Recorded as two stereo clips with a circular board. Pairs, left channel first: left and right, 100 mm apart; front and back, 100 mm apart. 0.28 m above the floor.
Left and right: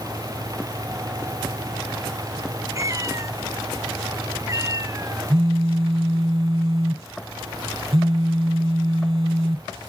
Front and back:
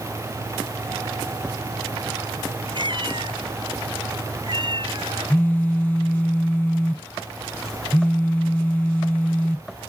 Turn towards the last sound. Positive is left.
turn(degrees=-70)